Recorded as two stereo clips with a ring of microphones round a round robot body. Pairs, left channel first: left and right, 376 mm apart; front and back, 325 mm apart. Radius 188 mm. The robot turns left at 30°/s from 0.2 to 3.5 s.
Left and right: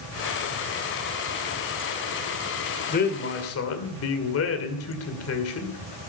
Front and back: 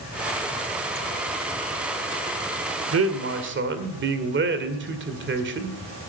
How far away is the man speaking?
About 2 m.